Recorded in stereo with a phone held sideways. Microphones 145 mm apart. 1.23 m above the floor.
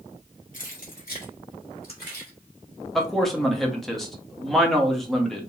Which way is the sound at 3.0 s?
Centre (ahead or behind).